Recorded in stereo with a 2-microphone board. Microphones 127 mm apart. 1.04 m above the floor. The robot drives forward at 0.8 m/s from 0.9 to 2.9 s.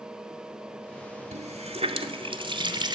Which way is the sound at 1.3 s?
60° right (ahead or behind).